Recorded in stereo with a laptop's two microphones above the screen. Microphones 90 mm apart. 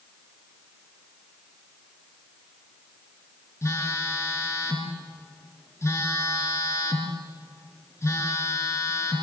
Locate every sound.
3.6 s a phone buzzing: 30° left (ahead or behind), 4 m